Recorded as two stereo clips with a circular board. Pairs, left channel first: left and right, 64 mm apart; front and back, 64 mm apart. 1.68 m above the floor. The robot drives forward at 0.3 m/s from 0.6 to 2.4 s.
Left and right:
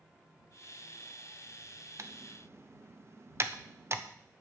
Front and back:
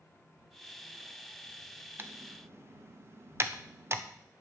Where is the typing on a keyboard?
130° right, 0.8 m; by 4.0 s 135° right, 0.9 m.